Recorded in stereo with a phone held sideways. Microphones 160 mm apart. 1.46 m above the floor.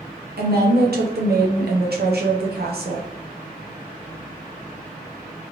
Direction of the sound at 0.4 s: 85° right.